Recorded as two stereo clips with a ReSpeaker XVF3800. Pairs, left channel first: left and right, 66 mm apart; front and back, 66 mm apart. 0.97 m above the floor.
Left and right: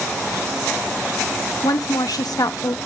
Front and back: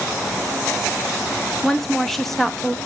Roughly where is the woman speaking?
Left.